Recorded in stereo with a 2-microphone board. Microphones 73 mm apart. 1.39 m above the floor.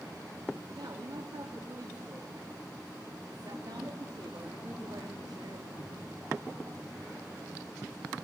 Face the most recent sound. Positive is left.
turn(degrees=-70)  # may be behind; listen again after turning